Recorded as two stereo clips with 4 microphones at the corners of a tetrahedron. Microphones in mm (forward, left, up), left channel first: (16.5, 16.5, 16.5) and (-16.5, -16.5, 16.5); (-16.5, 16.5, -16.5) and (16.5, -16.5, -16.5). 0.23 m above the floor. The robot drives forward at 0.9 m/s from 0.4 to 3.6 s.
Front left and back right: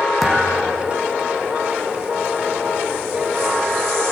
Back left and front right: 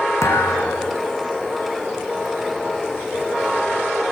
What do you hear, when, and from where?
0.2 s a thud: 130° left, 5 m; by 1.0 s 135° left, 5.5 m